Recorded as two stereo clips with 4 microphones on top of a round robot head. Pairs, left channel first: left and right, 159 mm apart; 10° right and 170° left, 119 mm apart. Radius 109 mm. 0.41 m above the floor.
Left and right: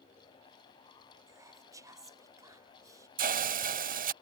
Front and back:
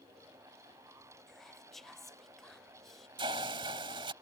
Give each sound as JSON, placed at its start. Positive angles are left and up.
{"t": 1.3, "sound": "whispering", "azimuth_deg": -95}
{"t": 3.2, "sound": "a hiss", "azimuth_deg": -125}